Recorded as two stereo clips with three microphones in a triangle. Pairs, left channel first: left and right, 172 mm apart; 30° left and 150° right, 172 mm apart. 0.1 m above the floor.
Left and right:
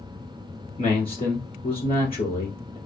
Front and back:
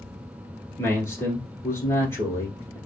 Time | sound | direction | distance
0.8 | a man speaking | 90° left | 1.3 m